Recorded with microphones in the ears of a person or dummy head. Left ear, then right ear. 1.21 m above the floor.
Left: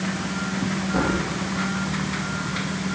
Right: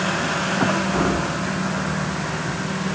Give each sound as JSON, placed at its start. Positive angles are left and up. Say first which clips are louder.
{"t": 0.9, "sound": "a thud", "louder": "right 2 dB", "side_deg": 30, "distance_m": 8.5}